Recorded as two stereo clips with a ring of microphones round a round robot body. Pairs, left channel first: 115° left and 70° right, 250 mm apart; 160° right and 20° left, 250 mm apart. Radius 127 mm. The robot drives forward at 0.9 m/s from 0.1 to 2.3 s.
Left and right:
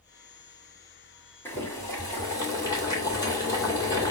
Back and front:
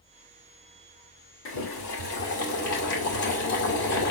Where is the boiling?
170° right, 1.7 m; by 4.1 s 175° right, 2.5 m.